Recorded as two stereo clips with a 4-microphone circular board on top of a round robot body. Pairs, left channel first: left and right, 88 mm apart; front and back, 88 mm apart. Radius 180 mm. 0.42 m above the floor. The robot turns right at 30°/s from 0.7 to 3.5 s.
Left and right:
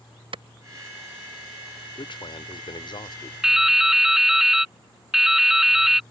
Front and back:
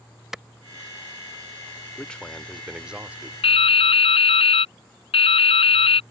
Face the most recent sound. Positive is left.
turn(degrees=-5)